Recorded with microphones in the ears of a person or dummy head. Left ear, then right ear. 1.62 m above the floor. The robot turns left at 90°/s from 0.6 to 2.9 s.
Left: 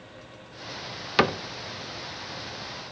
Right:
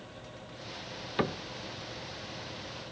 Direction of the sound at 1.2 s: 45° left (ahead or behind).